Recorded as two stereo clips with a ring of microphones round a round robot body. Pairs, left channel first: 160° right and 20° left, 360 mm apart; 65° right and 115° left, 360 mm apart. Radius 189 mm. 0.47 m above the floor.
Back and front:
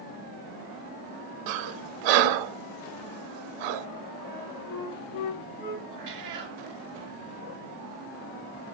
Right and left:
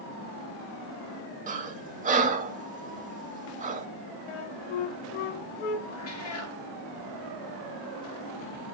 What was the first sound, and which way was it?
Breathing, 40° left.